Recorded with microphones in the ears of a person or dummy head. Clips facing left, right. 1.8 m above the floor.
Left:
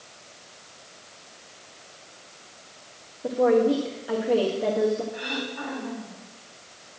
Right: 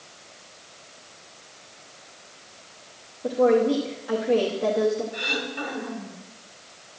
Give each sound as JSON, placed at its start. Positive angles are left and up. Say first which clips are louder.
{"t": 3.2, "sound": "a woman speaking", "louder": "right 1 dB", "side_deg": 5, "distance_m": 0.8}
{"t": 5.1, "sound": "throat clearing", "louder": "right 1 dB", "side_deg": -40, "distance_m": 2.0}